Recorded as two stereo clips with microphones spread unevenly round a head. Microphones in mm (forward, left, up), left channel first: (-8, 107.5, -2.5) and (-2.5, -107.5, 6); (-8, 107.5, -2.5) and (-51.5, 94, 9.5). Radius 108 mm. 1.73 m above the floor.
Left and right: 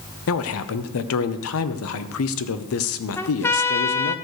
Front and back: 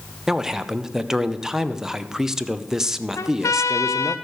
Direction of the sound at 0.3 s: 115° left.